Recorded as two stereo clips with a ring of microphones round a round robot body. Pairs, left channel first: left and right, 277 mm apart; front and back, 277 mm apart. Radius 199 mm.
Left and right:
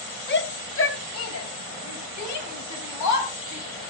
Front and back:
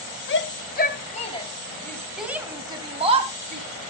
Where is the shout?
40° left, 2 m; by 3.7 s 120° left, 3 m.